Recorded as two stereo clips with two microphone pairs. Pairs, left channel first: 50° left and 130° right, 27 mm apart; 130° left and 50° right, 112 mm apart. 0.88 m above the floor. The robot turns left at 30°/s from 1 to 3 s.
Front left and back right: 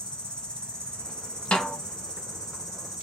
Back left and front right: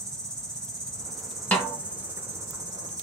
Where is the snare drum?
60° left, 1.0 m; by 1.8 s 50° left, 1.0 m.